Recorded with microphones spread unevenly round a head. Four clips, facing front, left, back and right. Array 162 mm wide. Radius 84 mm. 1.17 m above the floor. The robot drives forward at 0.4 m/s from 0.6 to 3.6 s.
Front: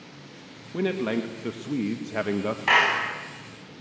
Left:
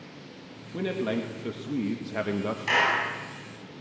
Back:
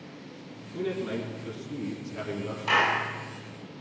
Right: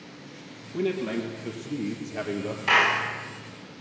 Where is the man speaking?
20° left, 2 m; by 2.6 s 30° left, 1.6 m.